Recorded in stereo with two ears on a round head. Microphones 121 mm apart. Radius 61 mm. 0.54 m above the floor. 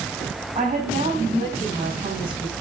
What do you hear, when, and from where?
0.6 s a woman speaking: 40° right (ahead or behind), 3.5 m